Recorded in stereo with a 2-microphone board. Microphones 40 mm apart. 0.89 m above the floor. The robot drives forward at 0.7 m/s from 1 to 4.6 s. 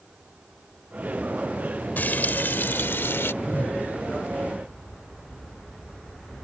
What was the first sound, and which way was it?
Frying, 50° left (ahead or behind).